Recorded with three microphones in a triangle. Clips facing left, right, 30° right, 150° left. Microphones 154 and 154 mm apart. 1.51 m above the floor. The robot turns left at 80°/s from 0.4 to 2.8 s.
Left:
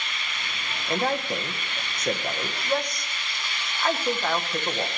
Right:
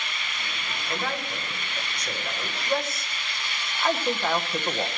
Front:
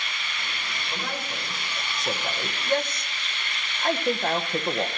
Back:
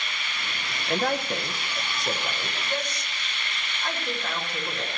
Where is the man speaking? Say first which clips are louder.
Left 6 dB, back 9 dB; 150° left, 0.9 m; by 4.9 s 5° right, 0.9 m.